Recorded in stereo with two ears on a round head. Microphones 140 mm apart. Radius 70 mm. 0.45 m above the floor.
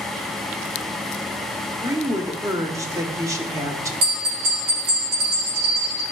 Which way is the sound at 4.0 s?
70° right (ahead or behind).